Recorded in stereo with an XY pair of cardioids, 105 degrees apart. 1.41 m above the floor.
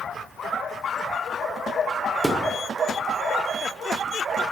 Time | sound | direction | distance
2.2 | a thud | 5° right | 2.5 m